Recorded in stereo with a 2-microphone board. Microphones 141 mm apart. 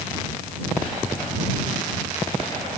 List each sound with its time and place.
Only background noise.